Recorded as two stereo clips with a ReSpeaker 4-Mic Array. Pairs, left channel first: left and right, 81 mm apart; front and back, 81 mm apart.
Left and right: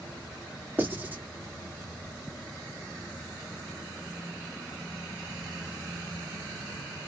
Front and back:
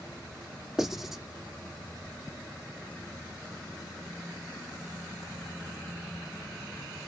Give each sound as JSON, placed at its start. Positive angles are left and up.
{"t": 0.8, "sound": "writing", "azimuth_deg": -105, "distance_m": 1.3}